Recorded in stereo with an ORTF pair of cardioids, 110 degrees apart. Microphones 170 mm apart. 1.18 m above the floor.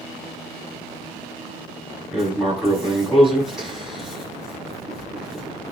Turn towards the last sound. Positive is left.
turn(degrees=0)